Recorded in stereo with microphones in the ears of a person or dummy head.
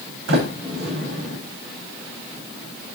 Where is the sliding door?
85° right, 4 m.